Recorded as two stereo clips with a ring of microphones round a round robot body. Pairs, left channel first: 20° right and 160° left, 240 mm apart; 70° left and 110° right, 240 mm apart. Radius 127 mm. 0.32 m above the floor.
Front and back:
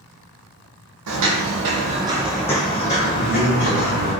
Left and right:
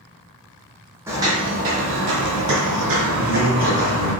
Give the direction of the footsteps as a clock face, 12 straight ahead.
6 o'clock.